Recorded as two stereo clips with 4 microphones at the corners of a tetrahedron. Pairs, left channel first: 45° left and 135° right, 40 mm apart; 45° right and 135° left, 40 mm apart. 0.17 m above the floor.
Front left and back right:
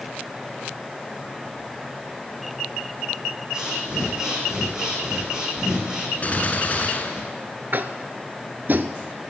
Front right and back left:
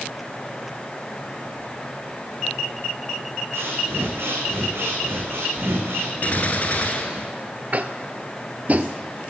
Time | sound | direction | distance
3.5 | breathing | 150° left | 2 m
6.2 | a gunshot | 5° right | 1.2 m
7.7 | tapping | 175° right | 0.5 m